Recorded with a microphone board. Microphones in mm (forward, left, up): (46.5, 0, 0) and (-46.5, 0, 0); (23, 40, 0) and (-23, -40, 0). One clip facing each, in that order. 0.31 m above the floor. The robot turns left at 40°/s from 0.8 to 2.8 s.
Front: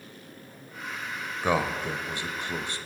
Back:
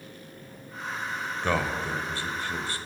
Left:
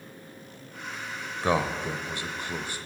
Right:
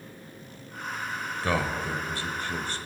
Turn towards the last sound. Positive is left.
turn(degrees=5)